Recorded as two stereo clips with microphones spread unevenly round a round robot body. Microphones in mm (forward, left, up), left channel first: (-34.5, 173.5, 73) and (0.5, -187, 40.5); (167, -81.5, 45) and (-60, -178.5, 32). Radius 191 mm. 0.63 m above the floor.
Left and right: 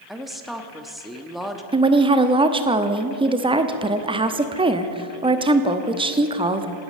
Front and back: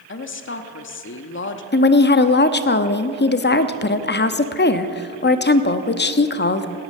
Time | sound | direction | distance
0.1 | a woman speaking | straight ahead | 1.0 m
1.7 | a woman speaking | 15° right | 0.8 m